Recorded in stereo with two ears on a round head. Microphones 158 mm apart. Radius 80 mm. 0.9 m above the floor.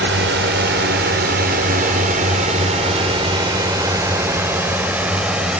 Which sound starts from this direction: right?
A drone, at 0.0 s.